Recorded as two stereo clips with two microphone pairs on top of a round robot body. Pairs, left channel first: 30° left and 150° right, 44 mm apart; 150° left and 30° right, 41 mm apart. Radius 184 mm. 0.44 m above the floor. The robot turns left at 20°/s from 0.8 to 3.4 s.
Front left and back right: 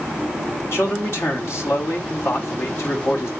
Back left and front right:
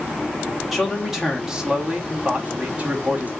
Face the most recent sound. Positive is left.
turn(degrees=0)